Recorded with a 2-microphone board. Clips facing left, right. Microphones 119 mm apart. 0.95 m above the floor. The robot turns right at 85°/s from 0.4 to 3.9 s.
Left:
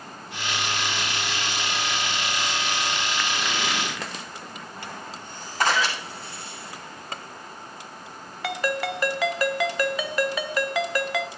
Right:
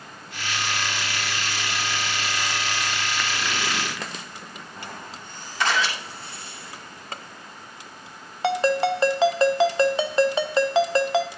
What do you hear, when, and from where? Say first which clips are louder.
5.6 s a camera shutter: left 1 dB; 45° left (ahead or behind), 8 m
8.4 s a ringtone: right 6 dB; 30° right (ahead or behind), 0.7 m